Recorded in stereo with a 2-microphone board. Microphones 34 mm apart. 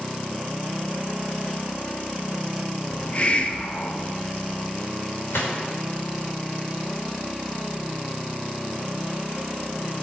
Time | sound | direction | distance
2.9 | a hiss | 35° left (ahead or behind) | 0.9 m
5.3 | a gunshot | 75° left (ahead or behind) | 3 m